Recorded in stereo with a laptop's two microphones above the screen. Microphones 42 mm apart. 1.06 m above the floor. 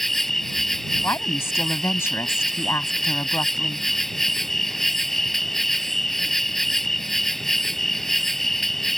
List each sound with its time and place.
0.0 s an insect: 5° left (ahead or behind)
1.0 s a woman speaking: 70° left (ahead or behind)